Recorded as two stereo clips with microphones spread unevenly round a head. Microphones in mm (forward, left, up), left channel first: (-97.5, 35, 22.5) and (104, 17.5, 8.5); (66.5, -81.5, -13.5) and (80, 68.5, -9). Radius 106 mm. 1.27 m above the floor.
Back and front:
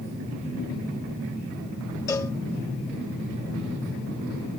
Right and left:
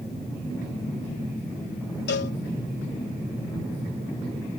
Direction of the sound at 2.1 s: 110° right.